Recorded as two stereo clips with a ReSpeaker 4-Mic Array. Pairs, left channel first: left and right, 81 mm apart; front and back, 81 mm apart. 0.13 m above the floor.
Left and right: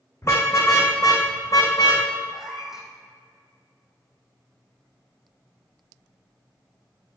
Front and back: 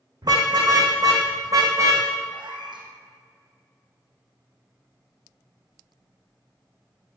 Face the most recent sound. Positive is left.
turn(degrees=-175)